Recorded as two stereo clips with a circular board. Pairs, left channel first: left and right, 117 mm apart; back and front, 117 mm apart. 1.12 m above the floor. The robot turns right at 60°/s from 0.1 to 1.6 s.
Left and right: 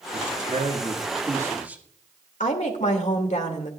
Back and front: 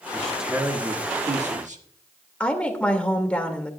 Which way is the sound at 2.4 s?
100° left.